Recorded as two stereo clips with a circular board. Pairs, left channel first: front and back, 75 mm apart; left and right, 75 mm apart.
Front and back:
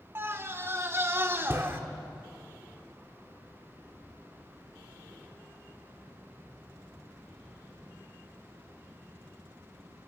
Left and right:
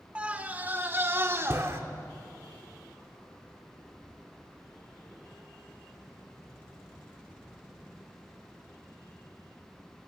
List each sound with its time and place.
0.1 s a scream: 150° right, 1.3 m; by 1.8 s 130° right, 1.8 m